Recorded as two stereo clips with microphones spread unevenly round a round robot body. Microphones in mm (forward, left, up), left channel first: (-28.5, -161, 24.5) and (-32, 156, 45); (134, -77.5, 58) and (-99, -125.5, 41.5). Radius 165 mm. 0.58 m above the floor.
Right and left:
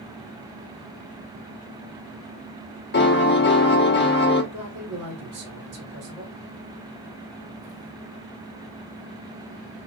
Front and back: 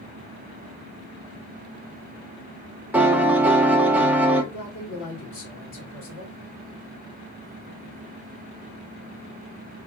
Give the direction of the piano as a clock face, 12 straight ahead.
3 o'clock.